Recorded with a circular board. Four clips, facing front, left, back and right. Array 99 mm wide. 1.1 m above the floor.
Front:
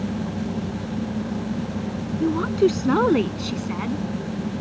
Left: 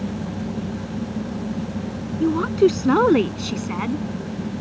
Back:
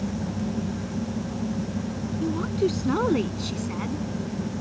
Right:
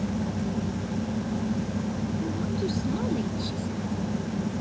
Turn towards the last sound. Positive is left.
turn(degrees=75)